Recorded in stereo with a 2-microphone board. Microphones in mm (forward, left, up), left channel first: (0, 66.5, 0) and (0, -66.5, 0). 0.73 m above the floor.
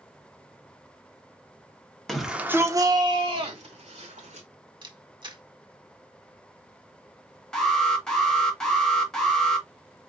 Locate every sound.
2.1 s a shout: centre (ahead or behind), 1.4 m; by 4.5 s 65° right (ahead or behind), 2.5 m
4.8 s a camera shutter: 35° right (ahead or behind), 1.5 m
7.5 s an alarm: 5° left (ahead or behind), 1.8 m